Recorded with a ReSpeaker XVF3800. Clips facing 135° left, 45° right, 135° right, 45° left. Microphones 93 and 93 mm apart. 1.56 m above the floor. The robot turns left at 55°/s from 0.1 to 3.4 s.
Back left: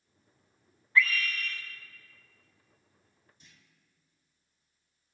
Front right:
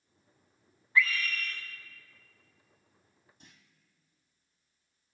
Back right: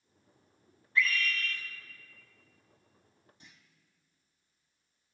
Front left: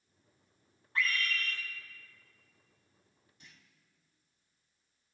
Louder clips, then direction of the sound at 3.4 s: Front right 4 dB, even; 75° right.